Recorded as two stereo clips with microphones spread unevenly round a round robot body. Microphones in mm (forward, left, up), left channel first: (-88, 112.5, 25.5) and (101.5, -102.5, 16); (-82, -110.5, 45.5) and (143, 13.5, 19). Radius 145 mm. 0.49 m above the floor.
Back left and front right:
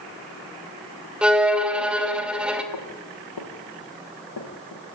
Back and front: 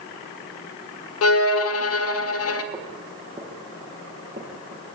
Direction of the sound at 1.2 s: 135° right.